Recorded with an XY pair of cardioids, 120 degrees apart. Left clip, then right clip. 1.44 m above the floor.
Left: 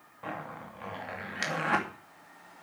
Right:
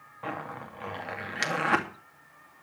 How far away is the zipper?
About 2.5 m.